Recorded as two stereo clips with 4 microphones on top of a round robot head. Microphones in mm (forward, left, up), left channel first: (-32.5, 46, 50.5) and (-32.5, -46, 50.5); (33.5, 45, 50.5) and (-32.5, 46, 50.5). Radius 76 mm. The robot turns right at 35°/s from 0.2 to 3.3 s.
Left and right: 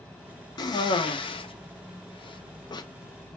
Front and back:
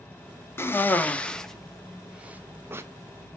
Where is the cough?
50° left, 0.5 m; by 2.8 s 130° left, 0.5 m.